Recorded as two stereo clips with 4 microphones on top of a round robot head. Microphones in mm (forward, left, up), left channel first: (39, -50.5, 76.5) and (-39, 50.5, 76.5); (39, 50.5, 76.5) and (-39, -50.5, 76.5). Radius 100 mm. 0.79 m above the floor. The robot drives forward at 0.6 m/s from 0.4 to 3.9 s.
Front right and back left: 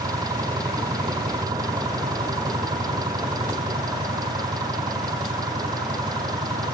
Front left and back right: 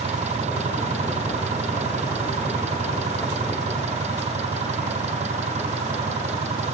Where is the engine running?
170° right.